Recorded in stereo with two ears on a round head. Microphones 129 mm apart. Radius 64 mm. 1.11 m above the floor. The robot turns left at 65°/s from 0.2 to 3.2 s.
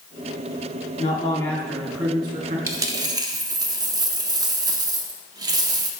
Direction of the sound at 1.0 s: 55° left.